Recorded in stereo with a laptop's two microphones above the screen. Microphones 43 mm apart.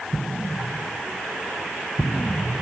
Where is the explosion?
5° left (ahead or behind), 0.8 m.